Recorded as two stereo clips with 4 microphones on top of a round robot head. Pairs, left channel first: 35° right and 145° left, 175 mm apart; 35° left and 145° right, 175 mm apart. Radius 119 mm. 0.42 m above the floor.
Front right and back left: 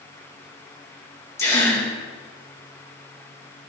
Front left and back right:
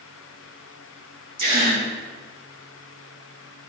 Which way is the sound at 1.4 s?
110° right.